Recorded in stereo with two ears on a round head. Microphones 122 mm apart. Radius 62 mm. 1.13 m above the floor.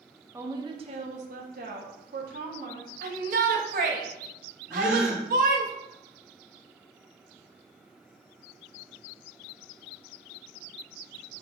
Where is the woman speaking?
15° right (ahead or behind), 1.3 m; by 2.9 s 80° right, 3.5 m.